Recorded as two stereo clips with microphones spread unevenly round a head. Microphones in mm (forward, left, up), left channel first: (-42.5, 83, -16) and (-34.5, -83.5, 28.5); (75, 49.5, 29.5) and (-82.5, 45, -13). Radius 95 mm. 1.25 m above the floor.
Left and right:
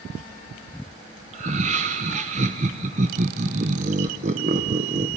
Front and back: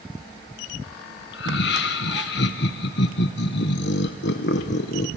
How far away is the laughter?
About 0.9 m.